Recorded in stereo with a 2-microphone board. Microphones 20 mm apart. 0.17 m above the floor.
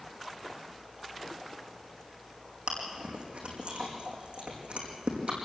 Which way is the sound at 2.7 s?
70° right (ahead or behind).